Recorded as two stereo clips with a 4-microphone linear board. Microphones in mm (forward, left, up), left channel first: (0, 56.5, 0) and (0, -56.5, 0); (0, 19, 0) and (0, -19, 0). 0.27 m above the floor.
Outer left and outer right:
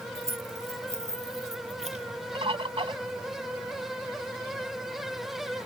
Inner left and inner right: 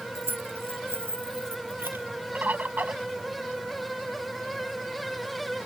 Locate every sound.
0.1 s keys jangling: 80° right
2.4 s a bird: 60° right (ahead or behind)